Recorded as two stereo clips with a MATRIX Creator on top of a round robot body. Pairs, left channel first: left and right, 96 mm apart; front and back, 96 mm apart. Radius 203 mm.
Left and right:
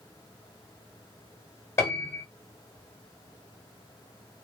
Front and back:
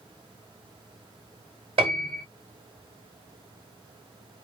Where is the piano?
155° left, 1.0 m.